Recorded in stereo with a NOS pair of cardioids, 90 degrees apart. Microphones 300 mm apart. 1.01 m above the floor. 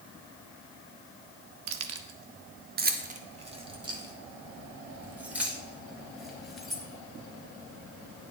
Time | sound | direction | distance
1.7 | keys jangling | 65° right | 0.9 m